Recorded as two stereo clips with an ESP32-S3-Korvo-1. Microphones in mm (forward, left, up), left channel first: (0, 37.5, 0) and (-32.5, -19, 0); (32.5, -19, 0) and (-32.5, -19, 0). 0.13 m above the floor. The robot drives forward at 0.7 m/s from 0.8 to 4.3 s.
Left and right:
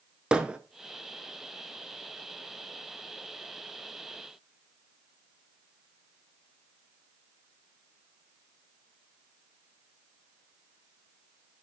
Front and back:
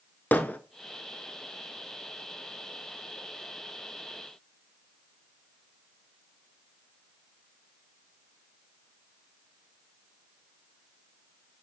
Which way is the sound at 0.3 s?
50° right.